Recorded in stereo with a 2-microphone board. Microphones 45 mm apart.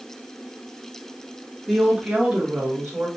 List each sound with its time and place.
1.7 s a woman speaking: 5° right (ahead or behind), 0.7 m; by 3.1 s 45° right (ahead or behind), 1.4 m